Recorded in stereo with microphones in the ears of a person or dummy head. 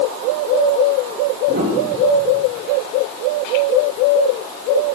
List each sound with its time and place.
1.5 s a piano: 60° right (ahead or behind), 5 m